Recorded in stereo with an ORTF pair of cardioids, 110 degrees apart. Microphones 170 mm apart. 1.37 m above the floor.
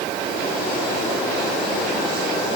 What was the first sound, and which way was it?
Only background noise.